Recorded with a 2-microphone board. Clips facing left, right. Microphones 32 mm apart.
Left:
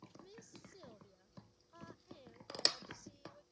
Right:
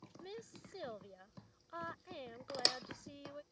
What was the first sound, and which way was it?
A woman speaking, 60° right (ahead or behind).